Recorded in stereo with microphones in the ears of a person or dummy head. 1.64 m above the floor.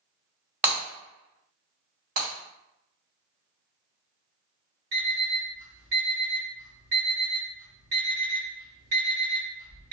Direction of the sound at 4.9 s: 55° right (ahead or behind).